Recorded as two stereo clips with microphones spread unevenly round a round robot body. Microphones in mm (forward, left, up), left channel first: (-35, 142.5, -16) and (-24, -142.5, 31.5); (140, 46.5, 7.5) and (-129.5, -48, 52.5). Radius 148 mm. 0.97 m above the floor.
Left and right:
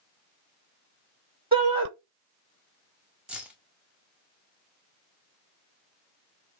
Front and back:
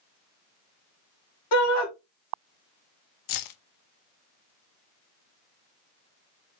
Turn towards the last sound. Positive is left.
turn(degrees=0)